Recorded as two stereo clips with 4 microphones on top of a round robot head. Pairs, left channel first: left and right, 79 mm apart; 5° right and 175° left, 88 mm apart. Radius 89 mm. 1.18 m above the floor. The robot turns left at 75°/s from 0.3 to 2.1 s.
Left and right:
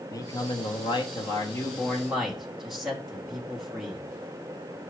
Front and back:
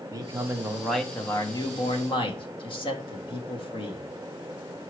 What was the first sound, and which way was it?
A man speaking, 130° left.